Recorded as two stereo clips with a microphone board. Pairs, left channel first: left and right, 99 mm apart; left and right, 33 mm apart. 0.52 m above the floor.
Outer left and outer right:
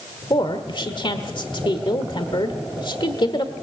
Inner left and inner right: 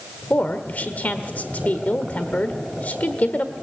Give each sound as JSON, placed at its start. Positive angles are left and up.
{"t": 0.3, "sound": "a woman speaking", "side_deg": 55, "distance_m": 1.4}